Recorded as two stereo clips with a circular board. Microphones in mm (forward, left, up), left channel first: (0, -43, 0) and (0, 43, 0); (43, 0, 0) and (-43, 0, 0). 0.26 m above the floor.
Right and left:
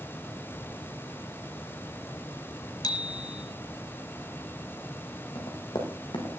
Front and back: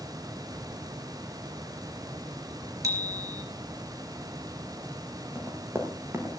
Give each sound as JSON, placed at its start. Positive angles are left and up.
{"t": 2.8, "sound": "a bicycle bell", "azimuth_deg": -130, "distance_m": 3.5}
{"t": 5.3, "sound": "running footsteps", "azimuth_deg": -120, "distance_m": 6.0}